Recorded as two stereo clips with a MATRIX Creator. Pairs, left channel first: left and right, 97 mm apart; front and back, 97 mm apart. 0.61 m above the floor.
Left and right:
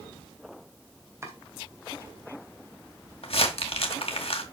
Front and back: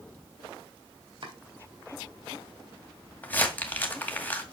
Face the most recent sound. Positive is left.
turn(degrees=70)